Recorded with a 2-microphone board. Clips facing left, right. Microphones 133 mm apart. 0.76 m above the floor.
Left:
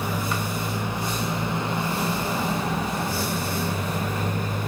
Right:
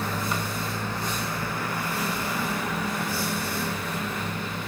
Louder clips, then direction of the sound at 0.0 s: Left 2 dB; 10° left (ahead or behind).